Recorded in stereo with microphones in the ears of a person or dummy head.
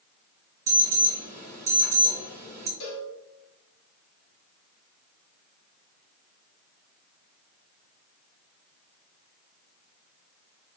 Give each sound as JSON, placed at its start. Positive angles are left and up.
{"t": 0.7, "sound": "an alarm", "side_deg": -20, "distance_m": 1.7}
{"t": 2.8, "sound": "a cowbell", "side_deg": 70, "distance_m": 1.2}